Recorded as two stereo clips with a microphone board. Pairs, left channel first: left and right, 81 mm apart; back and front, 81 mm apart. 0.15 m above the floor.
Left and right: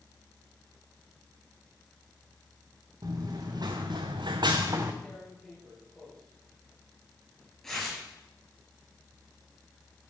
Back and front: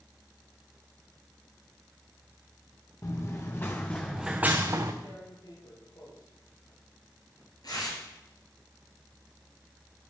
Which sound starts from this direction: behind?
Tearing paper, at 5.0 s.